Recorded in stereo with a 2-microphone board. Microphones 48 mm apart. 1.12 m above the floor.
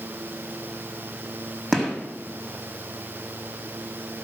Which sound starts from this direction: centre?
A gunshot, at 1.7 s.